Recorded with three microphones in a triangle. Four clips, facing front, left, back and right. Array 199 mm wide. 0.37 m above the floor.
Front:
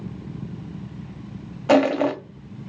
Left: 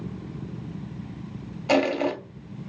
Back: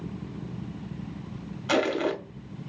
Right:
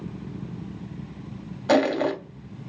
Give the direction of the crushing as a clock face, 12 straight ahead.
12 o'clock.